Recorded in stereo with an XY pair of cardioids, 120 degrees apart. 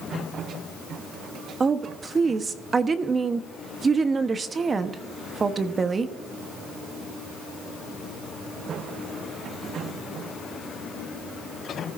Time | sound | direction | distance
1.6 | a woman speaking | 30° right | 1.0 m